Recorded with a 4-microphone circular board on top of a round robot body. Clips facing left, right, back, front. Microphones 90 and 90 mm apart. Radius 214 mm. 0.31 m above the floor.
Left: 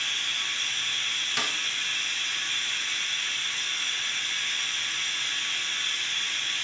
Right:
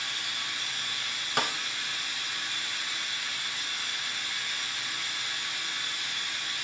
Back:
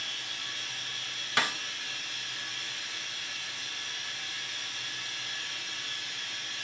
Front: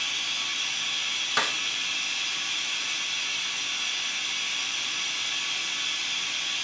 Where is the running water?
15° right, 1.5 m.